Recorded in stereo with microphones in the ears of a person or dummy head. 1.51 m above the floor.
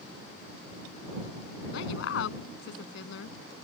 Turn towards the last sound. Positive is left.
turn(degrees=75)  # may be behind; listen again after turning